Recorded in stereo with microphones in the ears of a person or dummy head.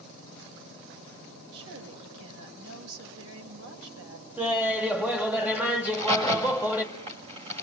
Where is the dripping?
No dripping in this recording.